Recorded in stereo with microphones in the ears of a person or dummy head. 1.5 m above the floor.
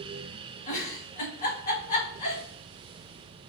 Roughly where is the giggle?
Left.